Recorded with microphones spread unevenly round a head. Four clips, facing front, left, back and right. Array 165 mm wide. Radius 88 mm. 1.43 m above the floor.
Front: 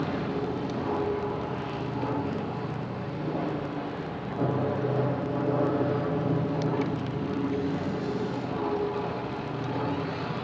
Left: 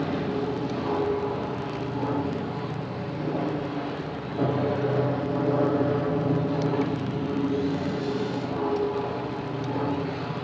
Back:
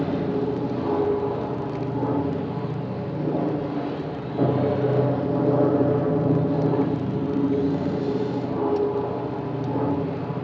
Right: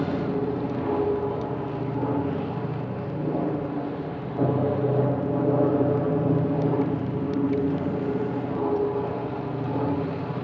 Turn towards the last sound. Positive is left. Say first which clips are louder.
# right 1 dB, back 6 dB
turn(degrees=-165)